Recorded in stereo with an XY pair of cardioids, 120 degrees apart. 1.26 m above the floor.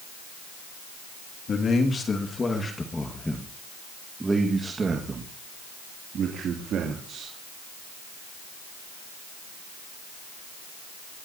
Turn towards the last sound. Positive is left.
turn(degrees=-60)